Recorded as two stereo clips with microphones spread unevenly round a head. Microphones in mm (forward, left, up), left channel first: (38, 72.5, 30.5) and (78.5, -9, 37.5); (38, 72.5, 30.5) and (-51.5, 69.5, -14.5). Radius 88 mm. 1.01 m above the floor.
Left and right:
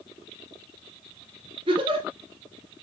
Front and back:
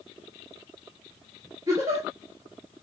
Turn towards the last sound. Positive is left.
turn(degrees=-110)